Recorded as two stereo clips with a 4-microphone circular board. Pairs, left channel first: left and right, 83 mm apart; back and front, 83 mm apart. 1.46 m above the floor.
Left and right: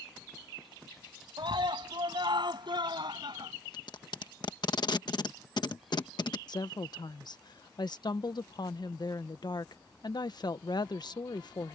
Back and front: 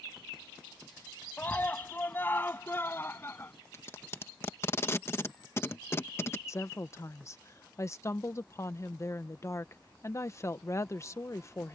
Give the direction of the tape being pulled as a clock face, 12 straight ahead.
8 o'clock.